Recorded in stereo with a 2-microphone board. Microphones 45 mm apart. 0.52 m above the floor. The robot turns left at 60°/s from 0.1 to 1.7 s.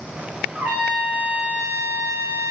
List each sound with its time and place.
0.6 s a trumpet: 35° right, 4 m; by 2.5 s 105° right, 4 m